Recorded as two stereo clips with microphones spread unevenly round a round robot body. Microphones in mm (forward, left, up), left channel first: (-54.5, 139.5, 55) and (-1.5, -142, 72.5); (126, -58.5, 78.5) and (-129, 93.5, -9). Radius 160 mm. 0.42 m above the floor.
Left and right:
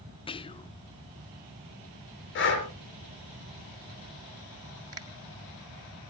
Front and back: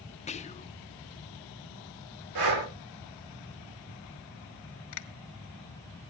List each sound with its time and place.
0.3 s whispering: 45° left, 0.9 m
2.4 s breathing: 150° left, 5 m
4.9 s a finger snap: straight ahead, 1.8 m